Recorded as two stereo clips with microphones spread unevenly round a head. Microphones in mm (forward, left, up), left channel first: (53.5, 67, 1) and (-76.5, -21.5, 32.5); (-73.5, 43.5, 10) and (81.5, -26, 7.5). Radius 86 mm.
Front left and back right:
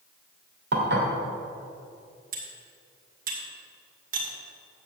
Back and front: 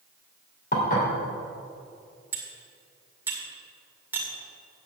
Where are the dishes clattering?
160° right, 3 m.